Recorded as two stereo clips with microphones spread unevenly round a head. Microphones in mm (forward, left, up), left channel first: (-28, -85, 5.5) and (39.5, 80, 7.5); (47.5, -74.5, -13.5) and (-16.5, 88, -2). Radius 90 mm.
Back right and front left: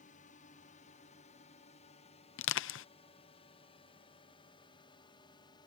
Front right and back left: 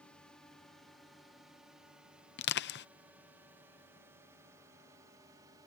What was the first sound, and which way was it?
A drone, 155° right.